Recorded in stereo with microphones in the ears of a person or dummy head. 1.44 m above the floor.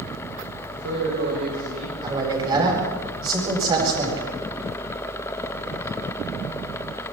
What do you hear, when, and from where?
0.7 s a man speaking: 85° right, 8.5 m; by 1.9 s 80° right, 9.5 m
2.0 s a man speaking: 25° right (ahead or behind), 8.5 m